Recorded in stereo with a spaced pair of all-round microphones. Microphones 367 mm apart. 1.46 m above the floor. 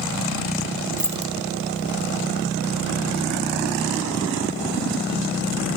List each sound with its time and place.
1.0 s keys jangling: 5° right (ahead or behind), 0.9 m